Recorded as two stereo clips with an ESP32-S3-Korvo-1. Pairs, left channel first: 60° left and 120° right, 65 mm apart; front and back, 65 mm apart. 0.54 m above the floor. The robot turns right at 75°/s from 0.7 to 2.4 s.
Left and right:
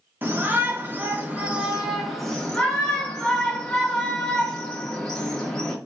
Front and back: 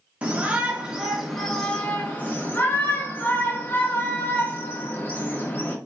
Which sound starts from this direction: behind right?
A shout, at 0.2 s.